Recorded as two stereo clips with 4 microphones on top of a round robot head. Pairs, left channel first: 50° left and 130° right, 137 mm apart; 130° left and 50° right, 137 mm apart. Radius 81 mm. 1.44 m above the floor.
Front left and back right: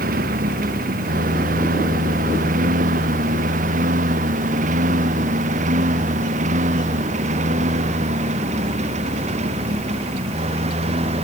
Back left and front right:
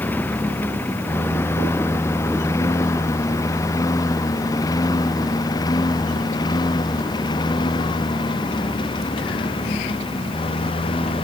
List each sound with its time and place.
0.0 s a lawn mower: 150° right; by 11.2 s 175° right